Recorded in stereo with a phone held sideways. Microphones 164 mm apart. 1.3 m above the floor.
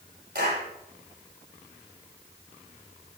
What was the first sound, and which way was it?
A clap, 70° right (ahead or behind).